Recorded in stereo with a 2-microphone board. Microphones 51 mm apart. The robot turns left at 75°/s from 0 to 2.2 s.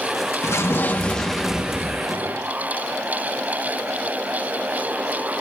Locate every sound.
0.4 s an explosion: 70° left, 1.7 m; by 2.5 s 60° right, 1.7 m